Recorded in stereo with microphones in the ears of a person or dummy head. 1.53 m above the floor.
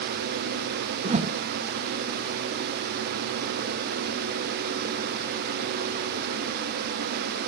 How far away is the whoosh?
About 0.7 m.